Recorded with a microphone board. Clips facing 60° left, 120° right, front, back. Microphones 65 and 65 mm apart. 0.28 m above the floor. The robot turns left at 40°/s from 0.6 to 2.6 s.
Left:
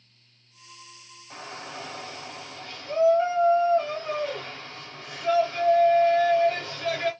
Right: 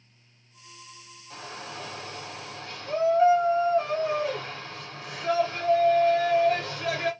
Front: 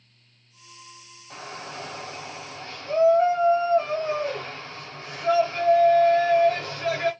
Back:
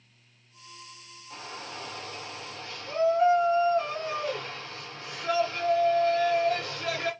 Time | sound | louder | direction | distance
1.3 | a shout | left 1 dB, front 3 dB | 10° left | 1.2 m